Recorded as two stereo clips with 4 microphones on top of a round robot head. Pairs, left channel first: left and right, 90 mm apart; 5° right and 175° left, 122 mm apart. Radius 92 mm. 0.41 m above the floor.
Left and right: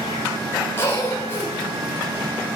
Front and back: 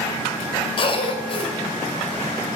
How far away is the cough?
About 2 m.